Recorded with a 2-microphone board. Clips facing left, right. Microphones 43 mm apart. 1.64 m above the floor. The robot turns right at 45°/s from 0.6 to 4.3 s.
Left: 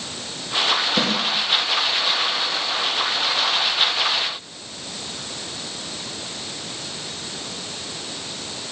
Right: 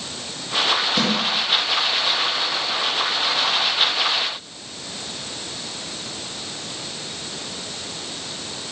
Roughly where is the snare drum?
Left.